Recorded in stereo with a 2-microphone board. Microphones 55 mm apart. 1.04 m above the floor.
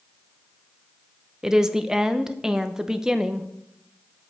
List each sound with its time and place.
1.4 s a woman speaking: 10° right (ahead or behind), 0.8 m